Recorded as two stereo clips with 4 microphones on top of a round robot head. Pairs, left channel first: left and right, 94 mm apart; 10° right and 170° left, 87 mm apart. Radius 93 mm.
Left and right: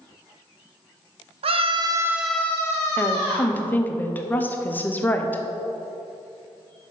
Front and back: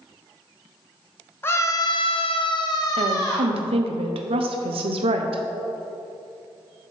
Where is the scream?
75° right, 0.7 m; by 3.6 s 45° left, 1.5 m.